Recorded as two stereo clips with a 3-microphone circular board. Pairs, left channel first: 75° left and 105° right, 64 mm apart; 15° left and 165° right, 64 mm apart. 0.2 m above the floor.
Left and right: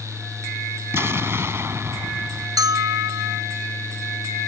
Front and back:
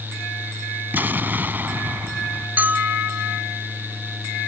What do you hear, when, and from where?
0.9 s an explosion: 125° right
2.6 s a bell: 105° right